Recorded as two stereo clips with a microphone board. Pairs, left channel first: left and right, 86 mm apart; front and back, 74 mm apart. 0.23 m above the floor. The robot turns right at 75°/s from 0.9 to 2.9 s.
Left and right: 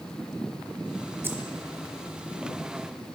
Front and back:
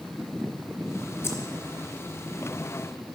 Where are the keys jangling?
40° right, 1.3 m; by 1.4 s 30° right, 1.3 m.